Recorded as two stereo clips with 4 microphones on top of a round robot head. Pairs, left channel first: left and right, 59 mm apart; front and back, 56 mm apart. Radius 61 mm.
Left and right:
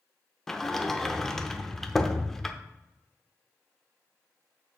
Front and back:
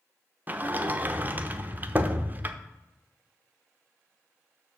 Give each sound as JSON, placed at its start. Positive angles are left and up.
{"t": 0.5, "sound": "a sliding door", "azimuth_deg": 170, "distance_m": 0.7}